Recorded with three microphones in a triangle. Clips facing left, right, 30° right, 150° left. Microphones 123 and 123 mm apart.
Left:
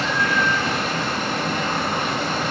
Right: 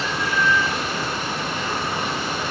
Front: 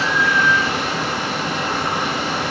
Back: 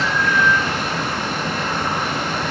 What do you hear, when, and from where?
0.0 s running water: 55° left, 4.5 m